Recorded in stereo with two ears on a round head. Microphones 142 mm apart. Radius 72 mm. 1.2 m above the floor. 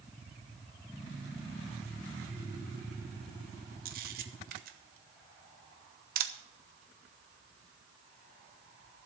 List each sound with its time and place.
3.9 s a camera shutter: 60° right (ahead or behind), 1.1 m